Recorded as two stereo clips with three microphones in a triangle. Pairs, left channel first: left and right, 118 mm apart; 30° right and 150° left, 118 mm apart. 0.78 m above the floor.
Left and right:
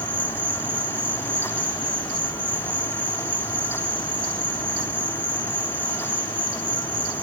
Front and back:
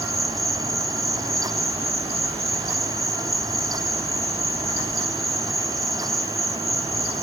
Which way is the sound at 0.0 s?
135° left.